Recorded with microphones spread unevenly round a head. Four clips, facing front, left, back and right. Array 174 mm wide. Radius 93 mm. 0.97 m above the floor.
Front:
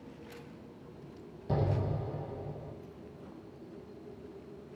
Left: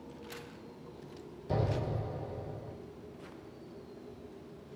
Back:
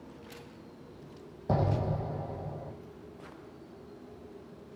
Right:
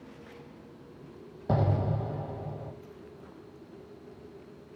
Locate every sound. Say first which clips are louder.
1.5 s an explosion: right 5 dB, back 3 dB; 120° right, 1.7 m